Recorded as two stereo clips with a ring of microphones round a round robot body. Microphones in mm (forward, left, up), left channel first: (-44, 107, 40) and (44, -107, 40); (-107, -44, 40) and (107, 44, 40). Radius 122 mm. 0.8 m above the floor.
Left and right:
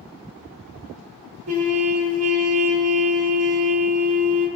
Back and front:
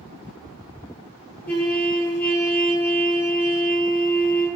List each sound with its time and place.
1.5 s a trumpet: 75° right, 1.1 m